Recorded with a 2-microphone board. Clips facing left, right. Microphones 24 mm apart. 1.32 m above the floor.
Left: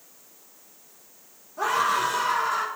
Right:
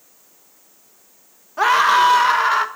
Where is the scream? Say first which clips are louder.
Right 10 dB; 70° right (ahead or behind), 1.6 m.